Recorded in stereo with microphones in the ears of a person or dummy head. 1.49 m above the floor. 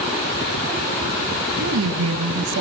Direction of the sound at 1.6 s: 80° right.